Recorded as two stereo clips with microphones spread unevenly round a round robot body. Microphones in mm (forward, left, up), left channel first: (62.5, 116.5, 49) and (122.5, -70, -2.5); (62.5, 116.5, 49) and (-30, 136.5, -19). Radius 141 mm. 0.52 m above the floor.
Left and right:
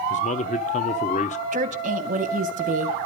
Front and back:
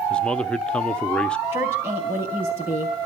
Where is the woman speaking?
130° right, 3 m.